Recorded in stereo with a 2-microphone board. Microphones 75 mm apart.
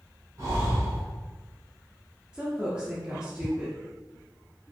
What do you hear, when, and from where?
0.4 s breathing: 50° right (ahead or behind), 1.6 m
2.3 s a woman speaking: 15° right (ahead or behind), 0.8 m